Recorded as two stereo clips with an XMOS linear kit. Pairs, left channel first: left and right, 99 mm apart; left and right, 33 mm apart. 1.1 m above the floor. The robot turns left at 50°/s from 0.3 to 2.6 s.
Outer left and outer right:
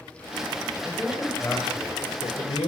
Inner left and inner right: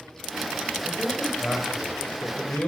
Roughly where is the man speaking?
Behind.